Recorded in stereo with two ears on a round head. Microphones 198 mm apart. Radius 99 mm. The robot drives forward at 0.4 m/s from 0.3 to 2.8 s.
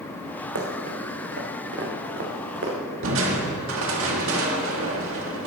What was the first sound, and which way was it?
Running footsteps, 65° right (ahead or behind).